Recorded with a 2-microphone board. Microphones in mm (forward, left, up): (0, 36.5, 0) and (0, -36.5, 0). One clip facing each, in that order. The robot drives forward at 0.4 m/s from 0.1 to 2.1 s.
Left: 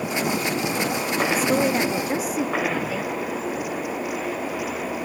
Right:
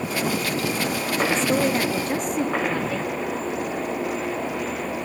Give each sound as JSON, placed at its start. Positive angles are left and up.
{"t": 1.3, "sound": "a woman speaking", "side_deg": 5, "distance_m": 0.8}